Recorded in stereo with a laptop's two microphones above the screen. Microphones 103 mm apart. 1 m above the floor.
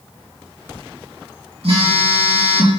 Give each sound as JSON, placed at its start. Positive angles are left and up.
{"t": 1.6, "sound": "a phone buzzing", "side_deg": -70, "distance_m": 4.0}